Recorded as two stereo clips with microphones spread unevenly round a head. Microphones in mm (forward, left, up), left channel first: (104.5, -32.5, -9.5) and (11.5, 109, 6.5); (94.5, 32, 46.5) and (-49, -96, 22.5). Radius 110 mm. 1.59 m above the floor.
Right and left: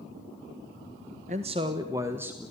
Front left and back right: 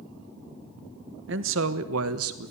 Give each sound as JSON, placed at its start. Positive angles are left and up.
{"t": 1.3, "sound": "a man speaking", "azimuth_deg": 180, "distance_m": 1.3}